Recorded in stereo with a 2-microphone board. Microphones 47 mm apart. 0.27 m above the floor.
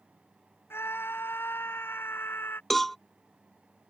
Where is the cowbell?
5° left (ahead or behind).